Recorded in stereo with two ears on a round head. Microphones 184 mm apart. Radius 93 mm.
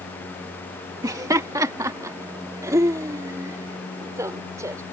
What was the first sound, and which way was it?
Laughter, 15° right (ahead or behind).